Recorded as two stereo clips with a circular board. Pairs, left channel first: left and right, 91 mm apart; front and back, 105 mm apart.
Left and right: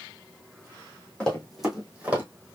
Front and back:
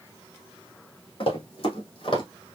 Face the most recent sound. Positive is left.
turn(degrees=-25)